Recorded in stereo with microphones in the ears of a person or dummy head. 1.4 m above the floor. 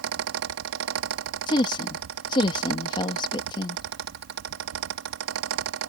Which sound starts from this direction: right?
A fan, at 0.0 s.